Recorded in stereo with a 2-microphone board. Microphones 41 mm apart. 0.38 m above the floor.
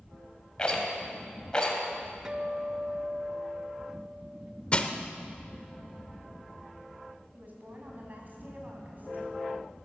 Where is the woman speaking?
45° right (ahead or behind), 3.5 m.